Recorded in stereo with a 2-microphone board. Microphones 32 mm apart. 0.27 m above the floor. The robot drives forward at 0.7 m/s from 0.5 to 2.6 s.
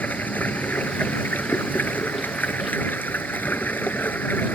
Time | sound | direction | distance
0.0 | running water | 65° left (ahead or behind) | ?